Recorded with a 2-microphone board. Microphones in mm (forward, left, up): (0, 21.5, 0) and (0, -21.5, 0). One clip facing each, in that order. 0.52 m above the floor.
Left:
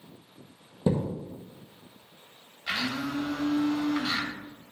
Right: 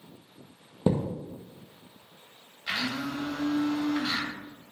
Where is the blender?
15° left (ahead or behind), 1.6 m.